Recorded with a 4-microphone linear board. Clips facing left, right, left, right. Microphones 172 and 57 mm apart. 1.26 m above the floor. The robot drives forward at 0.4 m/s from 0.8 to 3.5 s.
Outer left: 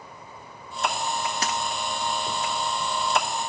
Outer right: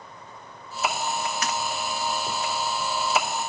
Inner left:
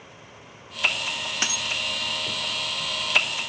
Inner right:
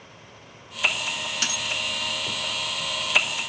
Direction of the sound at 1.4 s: 35° left (ahead or behind).